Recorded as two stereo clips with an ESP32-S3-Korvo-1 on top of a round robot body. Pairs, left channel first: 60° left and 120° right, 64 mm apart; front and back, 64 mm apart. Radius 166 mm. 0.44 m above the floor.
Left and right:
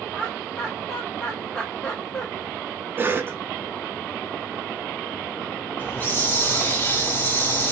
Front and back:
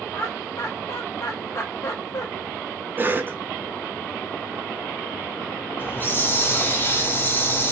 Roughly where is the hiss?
Ahead left.